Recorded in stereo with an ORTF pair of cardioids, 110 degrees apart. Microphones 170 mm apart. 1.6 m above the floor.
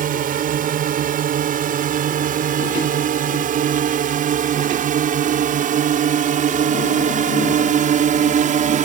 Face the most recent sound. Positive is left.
turn(degrees=-50)